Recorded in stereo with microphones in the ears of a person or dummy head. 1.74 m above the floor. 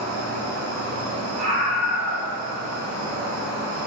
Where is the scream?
85° right, 1.3 m.